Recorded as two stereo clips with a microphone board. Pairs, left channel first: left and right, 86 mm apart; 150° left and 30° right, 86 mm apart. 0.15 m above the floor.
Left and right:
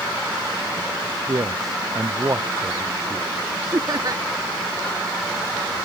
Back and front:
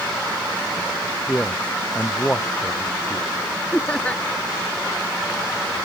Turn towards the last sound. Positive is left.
turn(degrees=-135)